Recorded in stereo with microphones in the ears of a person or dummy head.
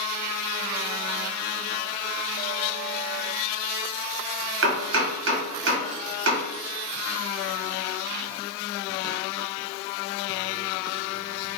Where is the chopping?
70° right (ahead or behind), 0.9 m.